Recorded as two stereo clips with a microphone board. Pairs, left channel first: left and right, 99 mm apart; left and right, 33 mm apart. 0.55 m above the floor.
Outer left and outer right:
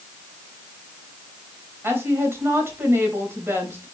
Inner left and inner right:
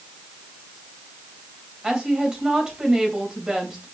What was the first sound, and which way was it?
A woman speaking, 25° right (ahead or behind).